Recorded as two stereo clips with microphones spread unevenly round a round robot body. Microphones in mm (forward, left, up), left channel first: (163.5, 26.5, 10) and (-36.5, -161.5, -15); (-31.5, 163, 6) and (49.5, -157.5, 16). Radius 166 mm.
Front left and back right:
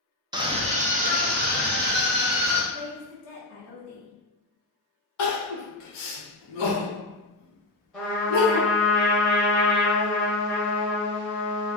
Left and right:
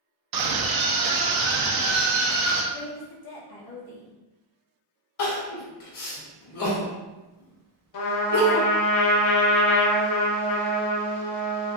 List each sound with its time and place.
0.3 s a scream: 70° right, 0.7 m; by 2.6 s 85° right, 2.0 m
2.7 s a woman speaking: 85° left, 1.3 m
5.2 s crying: 65° left, 1.4 m
7.9 s a trumpet: 125° left, 0.6 m